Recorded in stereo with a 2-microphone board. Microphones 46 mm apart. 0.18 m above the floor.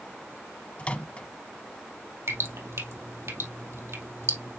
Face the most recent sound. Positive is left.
turn(degrees=-75)  # may be behind; listen again after turning